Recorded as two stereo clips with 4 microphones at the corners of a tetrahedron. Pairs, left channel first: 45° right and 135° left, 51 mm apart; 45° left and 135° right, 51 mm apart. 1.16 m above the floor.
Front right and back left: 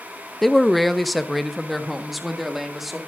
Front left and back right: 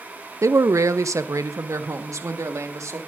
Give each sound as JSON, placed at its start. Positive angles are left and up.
{"t": 0.4, "sound": "a man speaking", "azimuth_deg": -130, "distance_m": 0.7}